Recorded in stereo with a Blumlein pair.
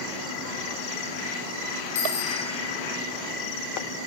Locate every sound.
1.9 s a bicycle bell: 60° left, 6 m